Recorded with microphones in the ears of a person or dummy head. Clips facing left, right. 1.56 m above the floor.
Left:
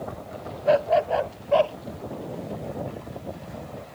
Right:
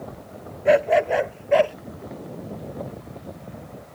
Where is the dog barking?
30° right (ahead or behind).